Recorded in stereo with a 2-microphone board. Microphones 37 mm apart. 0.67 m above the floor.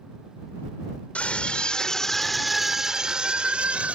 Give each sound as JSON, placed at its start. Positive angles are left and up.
{"t": 1.1, "sound": "a scream", "side_deg": 40}